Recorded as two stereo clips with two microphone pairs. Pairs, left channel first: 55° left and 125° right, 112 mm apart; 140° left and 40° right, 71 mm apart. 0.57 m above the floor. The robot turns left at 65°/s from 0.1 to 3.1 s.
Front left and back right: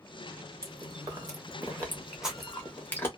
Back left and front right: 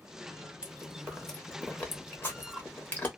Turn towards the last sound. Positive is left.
turn(degrees=100)